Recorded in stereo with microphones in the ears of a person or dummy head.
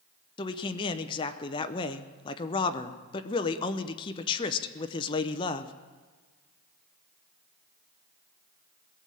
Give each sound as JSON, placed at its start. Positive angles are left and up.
{"t": 0.4, "sound": "a man speaking", "side_deg": 20, "distance_m": 0.7}